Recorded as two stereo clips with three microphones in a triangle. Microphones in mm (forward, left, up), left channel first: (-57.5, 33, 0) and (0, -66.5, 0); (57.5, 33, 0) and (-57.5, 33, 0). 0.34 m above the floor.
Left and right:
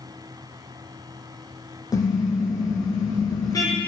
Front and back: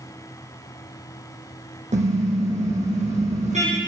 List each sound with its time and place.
1.9 s a car horn: straight behind, 5.5 m